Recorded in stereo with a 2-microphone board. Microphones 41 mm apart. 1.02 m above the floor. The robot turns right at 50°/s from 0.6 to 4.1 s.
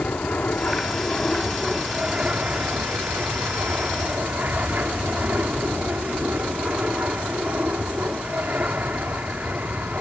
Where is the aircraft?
135° left; by 10.0 s 50° right.